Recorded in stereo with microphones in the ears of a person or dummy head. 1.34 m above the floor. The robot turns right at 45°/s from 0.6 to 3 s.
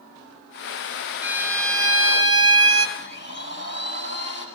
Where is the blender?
35° right (ahead or behind), 5.5 m; by 4.5 s 40° right (ahead or behind), 5.5 m.